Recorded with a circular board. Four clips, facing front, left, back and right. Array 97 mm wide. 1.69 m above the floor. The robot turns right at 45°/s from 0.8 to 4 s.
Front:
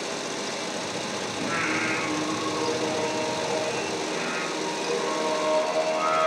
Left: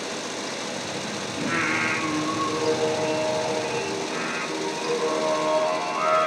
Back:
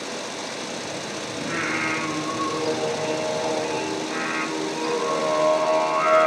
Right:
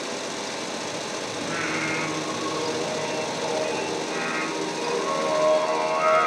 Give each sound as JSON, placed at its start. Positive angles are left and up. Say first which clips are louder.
{"t": 1.4, "sound": "singing", "louder": "left 4 dB, back 1 dB", "azimuth_deg": 85, "distance_m": 1.5}